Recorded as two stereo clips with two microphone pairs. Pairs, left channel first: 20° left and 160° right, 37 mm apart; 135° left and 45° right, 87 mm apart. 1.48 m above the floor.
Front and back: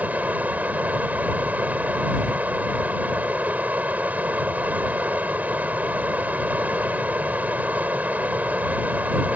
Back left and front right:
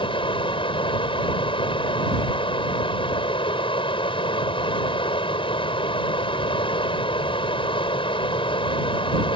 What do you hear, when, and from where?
0.0 s running water: 150° left